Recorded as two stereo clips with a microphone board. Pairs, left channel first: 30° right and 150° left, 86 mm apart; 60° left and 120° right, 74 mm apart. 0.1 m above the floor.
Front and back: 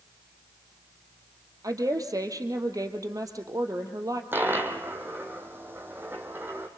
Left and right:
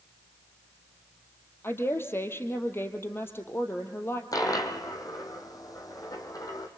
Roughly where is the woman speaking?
Left.